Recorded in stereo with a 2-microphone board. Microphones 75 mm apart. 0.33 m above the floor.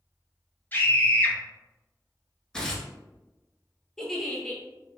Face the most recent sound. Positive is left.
turn(degrees=5)  # may be behind; listen again after turning